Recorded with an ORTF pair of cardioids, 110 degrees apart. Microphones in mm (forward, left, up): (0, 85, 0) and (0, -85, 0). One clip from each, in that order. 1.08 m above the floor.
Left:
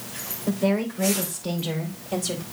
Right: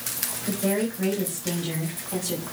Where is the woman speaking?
60° left, 4 m; by 2.4 s 50° left, 4.5 m.